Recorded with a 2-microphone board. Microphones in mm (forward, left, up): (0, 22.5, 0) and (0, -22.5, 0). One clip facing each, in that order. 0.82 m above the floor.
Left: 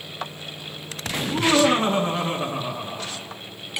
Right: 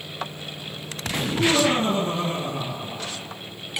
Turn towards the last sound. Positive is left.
turn(degrees=80)